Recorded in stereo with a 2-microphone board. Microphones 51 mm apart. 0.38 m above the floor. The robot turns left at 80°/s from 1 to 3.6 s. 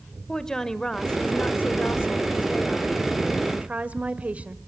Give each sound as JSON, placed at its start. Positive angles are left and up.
{"t": 0.3, "sound": "a woman speaking", "azimuth_deg": 165, "distance_m": 1.0}